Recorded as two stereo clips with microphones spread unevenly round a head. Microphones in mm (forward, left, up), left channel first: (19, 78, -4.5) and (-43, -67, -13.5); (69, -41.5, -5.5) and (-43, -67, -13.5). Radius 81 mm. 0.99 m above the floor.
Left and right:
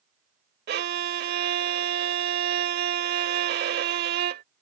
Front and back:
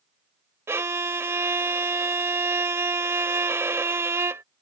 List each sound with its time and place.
0.7 s a violin: 100° right